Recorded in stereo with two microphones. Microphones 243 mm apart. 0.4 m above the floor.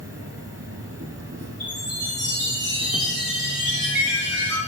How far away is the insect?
About 0.9 m.